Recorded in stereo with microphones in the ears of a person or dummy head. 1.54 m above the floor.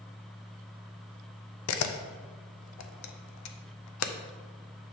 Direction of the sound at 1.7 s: 80° left.